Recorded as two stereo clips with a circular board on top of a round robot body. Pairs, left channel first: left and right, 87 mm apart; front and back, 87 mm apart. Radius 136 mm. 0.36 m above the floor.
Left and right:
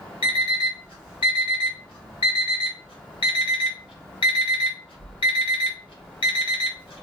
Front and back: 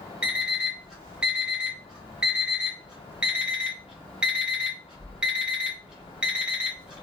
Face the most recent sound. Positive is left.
turn(degrees=100)